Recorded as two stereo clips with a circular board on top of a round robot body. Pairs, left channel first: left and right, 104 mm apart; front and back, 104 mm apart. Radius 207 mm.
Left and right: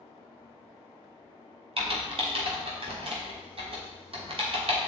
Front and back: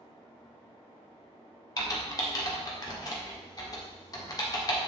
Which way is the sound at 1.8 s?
55° right.